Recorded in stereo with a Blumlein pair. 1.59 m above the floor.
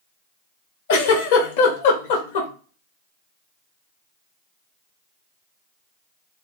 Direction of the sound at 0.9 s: 50° left.